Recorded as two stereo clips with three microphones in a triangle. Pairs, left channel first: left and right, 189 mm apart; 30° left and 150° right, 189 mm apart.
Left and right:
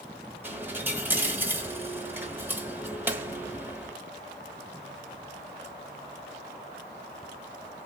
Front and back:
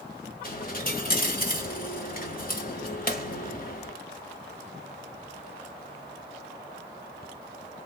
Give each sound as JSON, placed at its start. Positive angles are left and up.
{"t": 0.4, "sound": "a dropped coin", "azimuth_deg": -10, "distance_m": 1.1}